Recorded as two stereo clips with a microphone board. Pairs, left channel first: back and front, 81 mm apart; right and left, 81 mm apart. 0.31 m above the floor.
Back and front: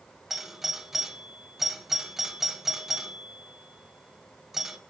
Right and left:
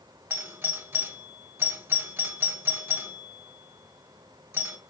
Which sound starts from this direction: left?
A doorbell, at 0.3 s.